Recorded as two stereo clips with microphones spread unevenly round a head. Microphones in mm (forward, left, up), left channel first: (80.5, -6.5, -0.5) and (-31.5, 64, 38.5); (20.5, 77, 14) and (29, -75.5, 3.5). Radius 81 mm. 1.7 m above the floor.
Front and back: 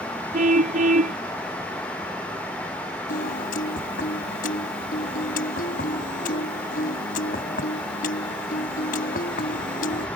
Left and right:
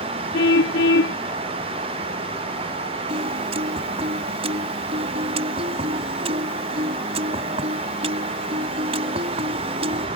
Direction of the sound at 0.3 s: 120° left.